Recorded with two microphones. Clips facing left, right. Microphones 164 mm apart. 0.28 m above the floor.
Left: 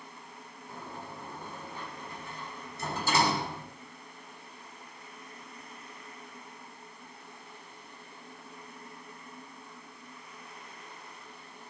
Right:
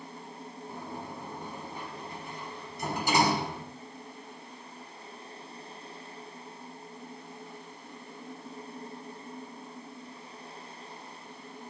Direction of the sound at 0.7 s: 15° right (ahead or behind).